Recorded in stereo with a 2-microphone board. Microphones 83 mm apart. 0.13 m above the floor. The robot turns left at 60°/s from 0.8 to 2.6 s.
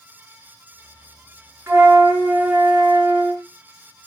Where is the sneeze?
No sneeze in this recording.